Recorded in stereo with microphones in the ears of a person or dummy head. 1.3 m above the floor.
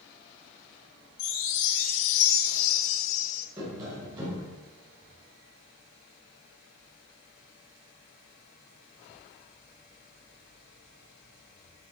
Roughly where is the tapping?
Right.